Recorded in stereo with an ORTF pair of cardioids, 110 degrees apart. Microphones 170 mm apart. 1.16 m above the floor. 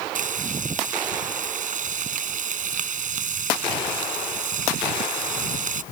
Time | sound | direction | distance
0.1 | frying | 50° right | ?